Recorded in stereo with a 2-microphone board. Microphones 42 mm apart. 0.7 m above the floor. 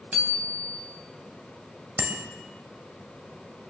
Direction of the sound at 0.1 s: 45° right (ahead or behind).